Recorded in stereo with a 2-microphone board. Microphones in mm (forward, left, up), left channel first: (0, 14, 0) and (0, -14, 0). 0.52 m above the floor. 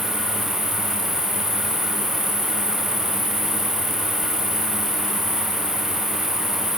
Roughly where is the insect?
Centre.